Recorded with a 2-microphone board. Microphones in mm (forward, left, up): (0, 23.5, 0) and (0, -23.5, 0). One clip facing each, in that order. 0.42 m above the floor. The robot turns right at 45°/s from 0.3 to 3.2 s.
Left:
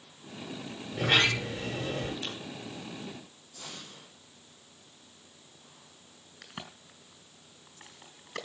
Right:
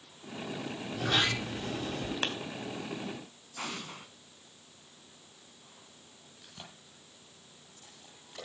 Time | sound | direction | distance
0.9 | a sliding door | 55° left | 8 m
2.2 | a clap | 65° right (ahead or behind) | 2.5 m
3.6 | an explosion | 80° right | 3 m
6.4 | a crack | 70° left (ahead or behind) | 5 m